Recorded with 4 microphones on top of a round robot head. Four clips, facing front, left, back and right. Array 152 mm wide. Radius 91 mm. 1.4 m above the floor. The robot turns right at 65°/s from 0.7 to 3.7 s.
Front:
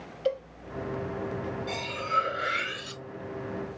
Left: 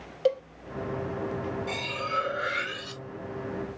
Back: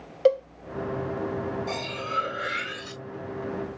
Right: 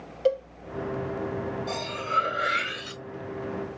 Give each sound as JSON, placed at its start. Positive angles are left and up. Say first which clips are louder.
{"t": 0.2, "sound": "a cowbell", "louder": "right 1 dB, back 9 dB", "azimuth_deg": 175, "distance_m": 0.6}
{"t": 1.7, "sound": "cutlery clinking", "louder": "right 2 dB, even", "azimuth_deg": -150, "distance_m": 1.3}